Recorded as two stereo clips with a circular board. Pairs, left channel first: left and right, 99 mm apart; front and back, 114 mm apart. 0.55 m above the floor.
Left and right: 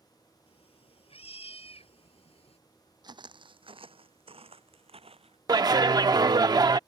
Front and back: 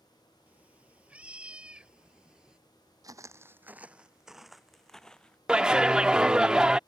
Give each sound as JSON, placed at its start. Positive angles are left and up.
{"t": 0.5, "sound": "a cat meowing", "azimuth_deg": 100}
{"t": 3.0, "sound": "footsteps", "azimuth_deg": -125}
{"t": 5.5, "sound": "a clap", "azimuth_deg": -100}